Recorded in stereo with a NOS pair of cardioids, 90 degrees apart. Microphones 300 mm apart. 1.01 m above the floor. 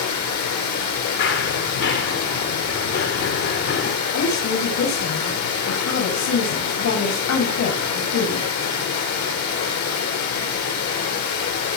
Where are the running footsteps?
50° left, 4.5 m.